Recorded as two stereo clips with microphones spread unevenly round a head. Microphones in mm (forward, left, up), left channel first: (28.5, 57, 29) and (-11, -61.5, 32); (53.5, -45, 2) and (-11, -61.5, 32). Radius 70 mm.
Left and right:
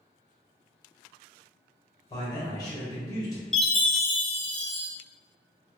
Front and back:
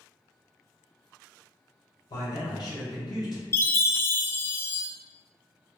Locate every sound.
2.1 s a man speaking: 10° left, 1.3 m
3.5 s a chime: 15° right, 0.5 m